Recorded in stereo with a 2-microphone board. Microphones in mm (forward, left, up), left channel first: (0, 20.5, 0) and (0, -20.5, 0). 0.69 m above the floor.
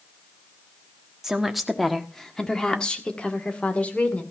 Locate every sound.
1.2 s a woman speaking: 15° right (ahead or behind), 1.4 m; by 4.2 s 35° left (ahead or behind), 2.5 m